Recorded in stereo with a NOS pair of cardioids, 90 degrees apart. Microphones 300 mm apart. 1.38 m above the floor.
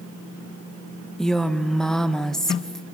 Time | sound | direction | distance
1.2 | a woman speaking | straight ahead | 1.6 m